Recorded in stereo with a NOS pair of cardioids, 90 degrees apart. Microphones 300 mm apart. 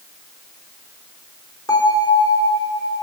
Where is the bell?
10° left, 5 m.